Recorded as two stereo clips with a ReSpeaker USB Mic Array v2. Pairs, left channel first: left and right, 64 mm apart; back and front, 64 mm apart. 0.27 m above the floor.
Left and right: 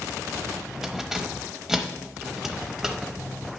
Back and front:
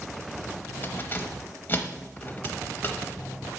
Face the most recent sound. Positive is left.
turn(degrees=-165)